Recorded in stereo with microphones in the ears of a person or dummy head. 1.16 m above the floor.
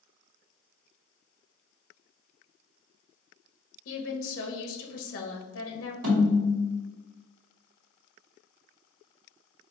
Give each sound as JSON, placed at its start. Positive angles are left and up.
{"t": 3.9, "sound": "a woman speaking", "side_deg": 75, "distance_m": 1.0}
{"t": 6.0, "sound": "a snare drum", "side_deg": -55, "distance_m": 1.9}